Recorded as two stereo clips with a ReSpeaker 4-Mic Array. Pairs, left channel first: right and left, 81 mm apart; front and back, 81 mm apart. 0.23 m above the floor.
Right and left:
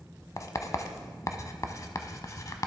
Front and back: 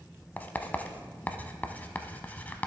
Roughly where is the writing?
Ahead right.